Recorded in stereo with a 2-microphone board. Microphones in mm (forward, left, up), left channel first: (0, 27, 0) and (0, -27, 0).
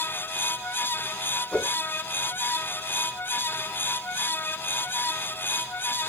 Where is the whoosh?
20° left (ahead or behind), 2.5 m.